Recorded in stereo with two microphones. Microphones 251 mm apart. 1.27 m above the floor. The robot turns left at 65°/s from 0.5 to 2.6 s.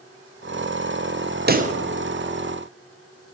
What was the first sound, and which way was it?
A pop, 40° right (ahead or behind).